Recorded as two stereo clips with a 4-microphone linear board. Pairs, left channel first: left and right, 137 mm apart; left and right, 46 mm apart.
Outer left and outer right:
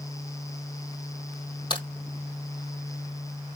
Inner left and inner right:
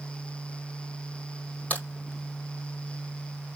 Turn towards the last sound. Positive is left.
turn(degrees=35)  # may be behind; listen again after turning